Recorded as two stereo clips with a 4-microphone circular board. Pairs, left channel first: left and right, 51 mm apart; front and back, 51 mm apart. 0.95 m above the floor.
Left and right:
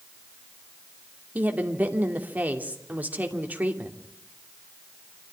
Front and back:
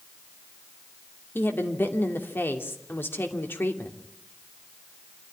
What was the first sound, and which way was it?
A woman speaking, 35° right.